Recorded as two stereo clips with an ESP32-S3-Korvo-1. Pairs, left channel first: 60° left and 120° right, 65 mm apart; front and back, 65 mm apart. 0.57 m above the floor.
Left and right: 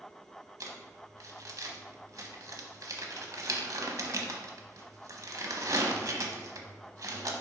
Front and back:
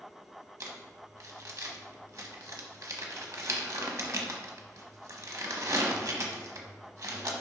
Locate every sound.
0.6 s crumpling: 150° right, 1.0 m